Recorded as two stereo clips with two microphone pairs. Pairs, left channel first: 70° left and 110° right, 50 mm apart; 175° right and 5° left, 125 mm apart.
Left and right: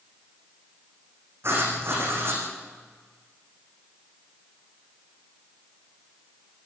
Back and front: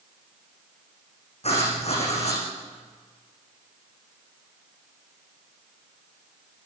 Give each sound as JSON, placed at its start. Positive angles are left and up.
{"t": 1.4, "sound": "writing", "azimuth_deg": -140, "distance_m": 8.0}